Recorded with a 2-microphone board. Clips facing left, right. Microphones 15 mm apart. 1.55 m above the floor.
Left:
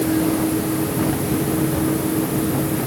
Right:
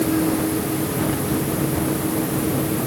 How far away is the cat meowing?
No cat meowing in this recording.